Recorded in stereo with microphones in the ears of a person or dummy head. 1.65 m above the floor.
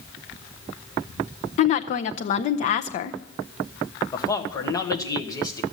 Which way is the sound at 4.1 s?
20° left (ahead or behind).